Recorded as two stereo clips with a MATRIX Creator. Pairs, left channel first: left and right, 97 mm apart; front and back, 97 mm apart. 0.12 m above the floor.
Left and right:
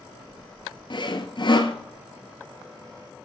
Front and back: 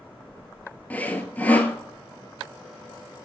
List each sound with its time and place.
0.9 s sawing: 70° left, 1.3 m